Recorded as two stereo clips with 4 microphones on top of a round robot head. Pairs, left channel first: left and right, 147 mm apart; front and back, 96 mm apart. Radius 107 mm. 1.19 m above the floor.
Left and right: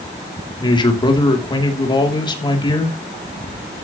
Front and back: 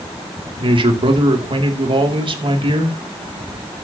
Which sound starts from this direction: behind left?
A man speaking, at 0.6 s.